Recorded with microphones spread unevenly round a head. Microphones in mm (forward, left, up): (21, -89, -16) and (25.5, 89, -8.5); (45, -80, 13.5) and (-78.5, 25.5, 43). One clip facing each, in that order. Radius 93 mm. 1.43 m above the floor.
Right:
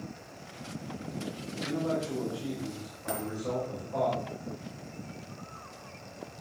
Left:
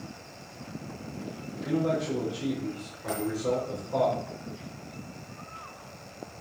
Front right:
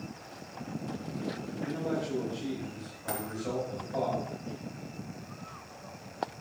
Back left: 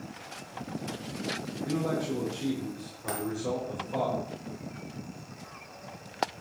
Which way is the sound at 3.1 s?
155° right.